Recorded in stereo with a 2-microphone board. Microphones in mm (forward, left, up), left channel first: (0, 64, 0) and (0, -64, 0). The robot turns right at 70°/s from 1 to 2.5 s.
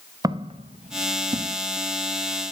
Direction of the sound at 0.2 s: 30° right (ahead or behind).